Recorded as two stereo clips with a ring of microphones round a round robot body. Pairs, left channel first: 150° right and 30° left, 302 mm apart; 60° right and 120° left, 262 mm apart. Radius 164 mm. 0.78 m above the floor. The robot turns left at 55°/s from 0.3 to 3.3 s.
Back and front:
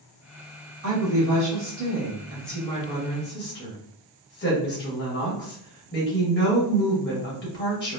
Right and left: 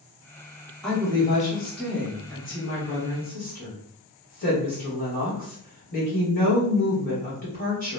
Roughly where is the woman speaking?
Ahead left.